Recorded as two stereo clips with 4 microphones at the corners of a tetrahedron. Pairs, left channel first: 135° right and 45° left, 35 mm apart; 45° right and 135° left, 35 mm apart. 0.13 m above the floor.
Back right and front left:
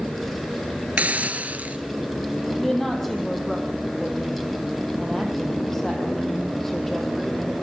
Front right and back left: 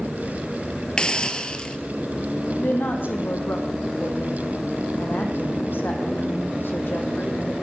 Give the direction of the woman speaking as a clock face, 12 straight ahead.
2 o'clock.